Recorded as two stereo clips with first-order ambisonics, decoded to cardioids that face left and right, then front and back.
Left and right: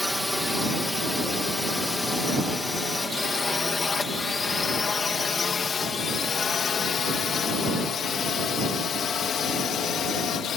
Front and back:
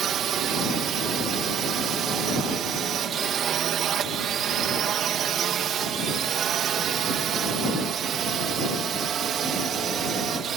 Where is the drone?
175° left; by 10.6 s 135° left.